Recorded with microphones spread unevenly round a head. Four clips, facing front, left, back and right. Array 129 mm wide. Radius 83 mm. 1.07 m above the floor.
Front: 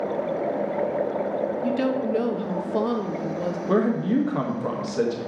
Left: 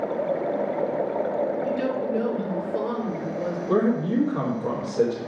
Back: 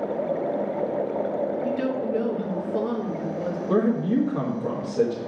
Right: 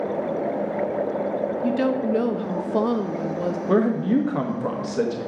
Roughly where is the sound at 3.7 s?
Behind right.